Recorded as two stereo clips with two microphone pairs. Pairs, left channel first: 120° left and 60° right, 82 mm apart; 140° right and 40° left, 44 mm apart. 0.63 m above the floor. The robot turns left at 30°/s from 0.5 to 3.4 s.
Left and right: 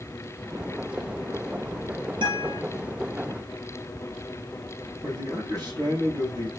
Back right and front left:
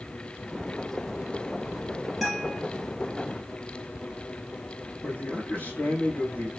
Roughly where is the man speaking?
Right.